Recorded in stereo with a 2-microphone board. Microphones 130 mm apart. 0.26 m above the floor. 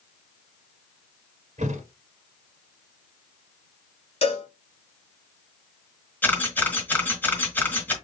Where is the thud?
60° right (ahead or behind), 1.3 m.